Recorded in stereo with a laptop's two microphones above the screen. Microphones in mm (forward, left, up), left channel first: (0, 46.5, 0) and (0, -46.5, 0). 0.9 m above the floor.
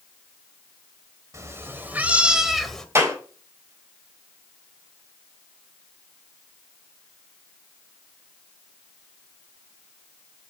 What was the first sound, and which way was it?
A cat meowing, 35° right (ahead or behind).